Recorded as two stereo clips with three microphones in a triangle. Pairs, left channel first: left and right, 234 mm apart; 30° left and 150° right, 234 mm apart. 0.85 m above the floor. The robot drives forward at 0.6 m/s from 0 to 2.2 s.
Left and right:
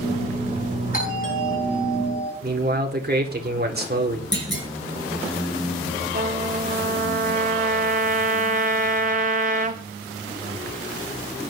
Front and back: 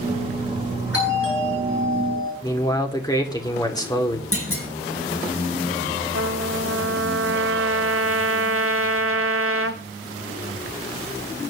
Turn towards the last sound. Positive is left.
turn(degrees=-145)